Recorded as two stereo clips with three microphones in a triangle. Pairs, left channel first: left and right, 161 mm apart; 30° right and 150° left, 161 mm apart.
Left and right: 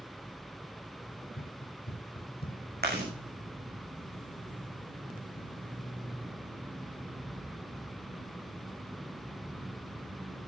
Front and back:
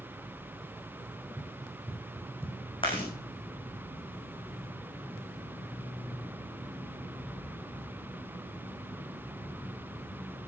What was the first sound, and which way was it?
Running footsteps, 85° left.